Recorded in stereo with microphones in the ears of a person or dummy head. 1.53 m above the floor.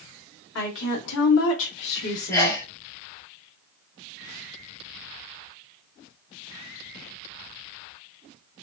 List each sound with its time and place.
0.6 s a woman speaking: 60° left (ahead or behind), 1.1 m; by 2.6 s 35° left (ahead or behind), 1.0 m
2.3 s a sneeze: 15° left (ahead or behind), 0.8 m